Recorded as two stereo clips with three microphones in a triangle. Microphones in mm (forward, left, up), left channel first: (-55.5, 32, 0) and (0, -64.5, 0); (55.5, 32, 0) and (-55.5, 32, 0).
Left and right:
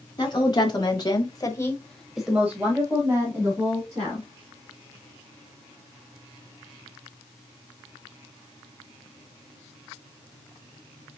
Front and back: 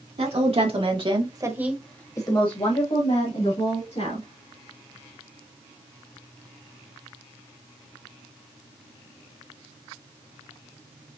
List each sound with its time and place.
0.2 s a woman speaking: 165° left, 2.5 m; by 4.3 s straight ahead, 3.5 m